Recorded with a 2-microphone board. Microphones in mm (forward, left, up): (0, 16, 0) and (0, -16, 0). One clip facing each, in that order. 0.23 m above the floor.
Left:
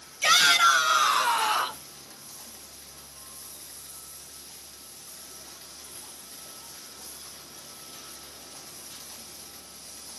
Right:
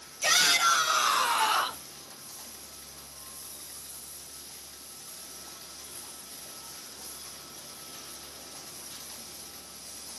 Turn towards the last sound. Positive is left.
turn(degrees=-5)  # may be behind; listen again after turning